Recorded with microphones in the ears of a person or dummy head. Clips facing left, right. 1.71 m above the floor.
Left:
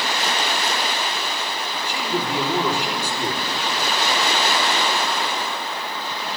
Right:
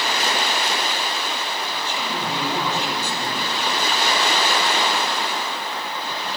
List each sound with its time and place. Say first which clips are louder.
1.9 s a man speaking: left 5 dB; 15° left (ahead or behind), 4.5 m